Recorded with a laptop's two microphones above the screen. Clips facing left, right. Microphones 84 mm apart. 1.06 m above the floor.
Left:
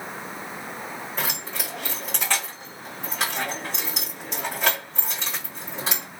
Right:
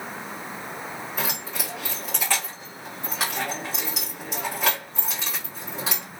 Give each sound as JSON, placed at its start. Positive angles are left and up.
{"t": 1.2, "sound": "keys jangling", "side_deg": -5, "distance_m": 2.5}